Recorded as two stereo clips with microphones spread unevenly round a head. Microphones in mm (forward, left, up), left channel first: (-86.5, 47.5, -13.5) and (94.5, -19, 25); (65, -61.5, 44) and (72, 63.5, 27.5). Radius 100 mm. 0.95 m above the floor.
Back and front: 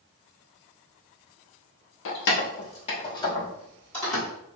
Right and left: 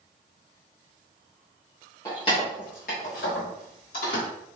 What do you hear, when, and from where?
2.0 s keys jangling: 165° right, 0.8 m; by 4.2 s 110° right, 1.5 m